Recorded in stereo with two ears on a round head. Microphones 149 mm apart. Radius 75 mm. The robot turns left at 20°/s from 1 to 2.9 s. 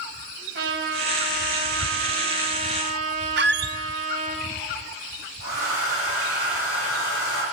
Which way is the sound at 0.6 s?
90° right.